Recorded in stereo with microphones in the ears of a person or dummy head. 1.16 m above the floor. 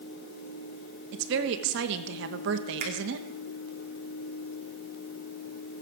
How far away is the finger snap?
About 3 m.